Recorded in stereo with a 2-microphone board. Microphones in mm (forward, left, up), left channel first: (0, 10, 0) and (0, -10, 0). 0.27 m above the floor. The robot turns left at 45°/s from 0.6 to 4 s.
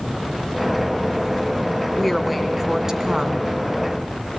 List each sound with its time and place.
2.0 s a woman speaking: 10° left, 3 m; by 3.5 s 60° right, 3 m